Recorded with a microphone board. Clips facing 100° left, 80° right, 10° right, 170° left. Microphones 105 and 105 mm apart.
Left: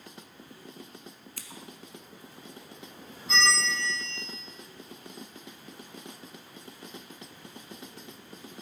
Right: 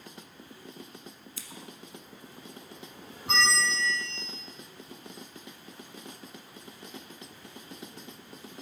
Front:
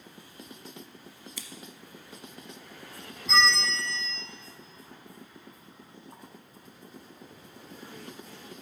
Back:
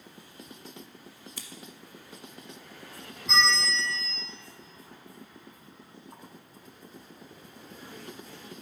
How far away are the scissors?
About 1.0 m.